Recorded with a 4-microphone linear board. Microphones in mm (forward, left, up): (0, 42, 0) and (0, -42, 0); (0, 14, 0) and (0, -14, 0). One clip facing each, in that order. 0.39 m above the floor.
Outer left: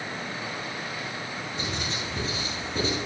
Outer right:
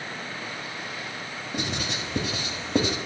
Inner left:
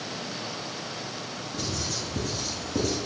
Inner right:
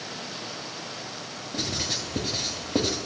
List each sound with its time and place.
1.5 s writing: 85° right, 1.7 m